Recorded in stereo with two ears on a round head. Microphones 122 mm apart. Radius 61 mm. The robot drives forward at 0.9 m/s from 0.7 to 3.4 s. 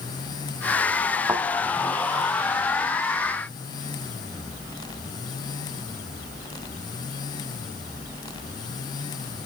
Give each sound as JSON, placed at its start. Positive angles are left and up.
{"t": 1.3, "sound": "a thud", "side_deg": -10, "distance_m": 1.6}